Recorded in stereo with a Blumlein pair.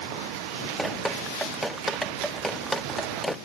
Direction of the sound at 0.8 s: 5° right.